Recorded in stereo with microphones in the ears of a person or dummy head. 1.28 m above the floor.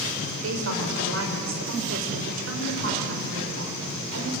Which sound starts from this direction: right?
A woman speaking, at 0.4 s.